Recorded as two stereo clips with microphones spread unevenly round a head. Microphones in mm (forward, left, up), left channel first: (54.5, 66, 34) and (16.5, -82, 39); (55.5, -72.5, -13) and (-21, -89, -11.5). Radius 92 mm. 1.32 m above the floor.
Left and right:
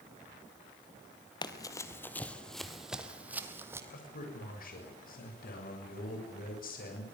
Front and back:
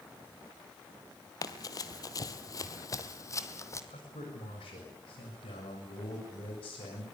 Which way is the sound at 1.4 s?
25° left.